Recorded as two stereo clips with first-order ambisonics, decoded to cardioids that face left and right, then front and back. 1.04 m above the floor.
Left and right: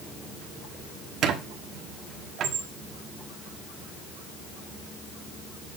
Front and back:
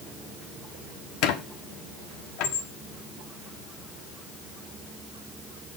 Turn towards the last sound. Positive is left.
turn(degrees=-35)